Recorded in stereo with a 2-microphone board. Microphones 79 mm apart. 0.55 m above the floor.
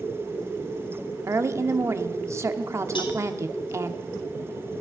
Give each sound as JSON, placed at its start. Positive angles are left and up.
{"t": 1.3, "sound": "a woman speaking", "side_deg": -35, "distance_m": 0.8}
{"t": 3.0, "sound": "a cowbell", "side_deg": 85, "distance_m": 1.8}